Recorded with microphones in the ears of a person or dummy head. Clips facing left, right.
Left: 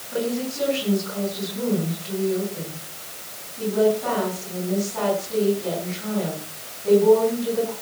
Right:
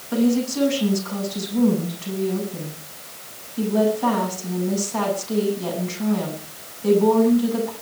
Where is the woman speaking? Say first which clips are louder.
Right 6 dB; 85° right, 8.5 m.